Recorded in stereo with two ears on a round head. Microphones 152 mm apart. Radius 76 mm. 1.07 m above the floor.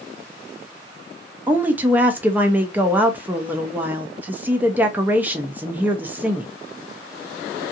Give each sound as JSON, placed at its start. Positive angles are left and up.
{"t": 1.5, "sound": "a woman speaking", "side_deg": -10, "distance_m": 0.6}